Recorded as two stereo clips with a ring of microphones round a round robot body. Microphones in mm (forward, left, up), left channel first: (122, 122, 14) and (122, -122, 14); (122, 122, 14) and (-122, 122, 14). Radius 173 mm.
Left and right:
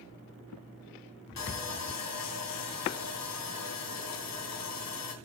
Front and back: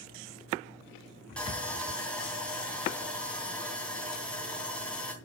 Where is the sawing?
85° left, 3.5 m.